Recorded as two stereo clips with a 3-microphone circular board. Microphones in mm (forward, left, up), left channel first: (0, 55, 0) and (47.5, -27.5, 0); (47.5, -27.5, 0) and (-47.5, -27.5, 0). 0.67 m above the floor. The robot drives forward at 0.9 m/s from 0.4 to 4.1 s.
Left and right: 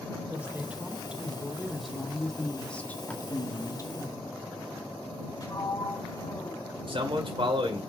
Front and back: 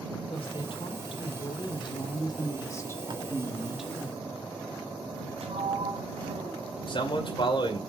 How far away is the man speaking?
About 2.5 m.